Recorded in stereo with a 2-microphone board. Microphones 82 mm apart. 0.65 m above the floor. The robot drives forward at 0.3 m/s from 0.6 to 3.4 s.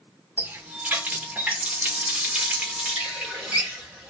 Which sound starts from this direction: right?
A running tap, at 0.4 s.